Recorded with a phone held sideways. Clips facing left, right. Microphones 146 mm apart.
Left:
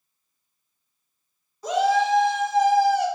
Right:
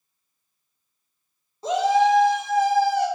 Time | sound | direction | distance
1.6 | a shout | 25° right (ahead or behind) | 0.8 m